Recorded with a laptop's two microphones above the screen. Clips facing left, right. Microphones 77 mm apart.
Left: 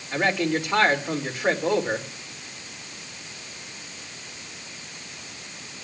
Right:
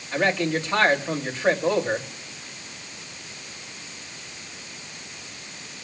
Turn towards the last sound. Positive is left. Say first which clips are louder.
# even
turn(degrees=15)  # may be behind; listen again after turning